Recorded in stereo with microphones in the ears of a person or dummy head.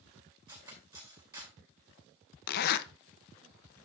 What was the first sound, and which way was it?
Cutlery clinking, 20° right (ahead or behind).